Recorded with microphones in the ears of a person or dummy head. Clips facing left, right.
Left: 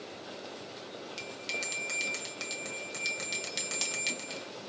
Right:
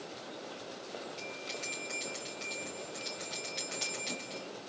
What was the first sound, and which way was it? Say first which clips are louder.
A bell: left 1 dB; 80° left.